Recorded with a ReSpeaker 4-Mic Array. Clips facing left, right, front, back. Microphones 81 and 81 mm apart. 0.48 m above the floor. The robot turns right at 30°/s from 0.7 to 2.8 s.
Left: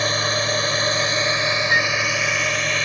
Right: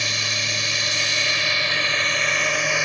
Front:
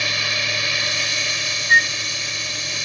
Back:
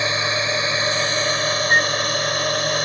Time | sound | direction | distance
0.0 | a drone | 125° left | ?
1.7 | a flute | 65° left | ?